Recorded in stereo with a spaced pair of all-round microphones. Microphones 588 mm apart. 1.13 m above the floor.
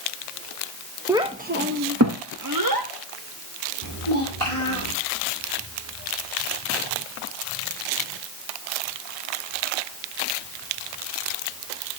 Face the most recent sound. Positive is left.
turn(degrees=30)  # may be behind; listen again after turning